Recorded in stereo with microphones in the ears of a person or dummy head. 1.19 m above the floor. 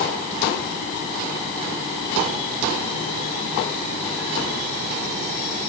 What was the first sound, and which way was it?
Only background noise.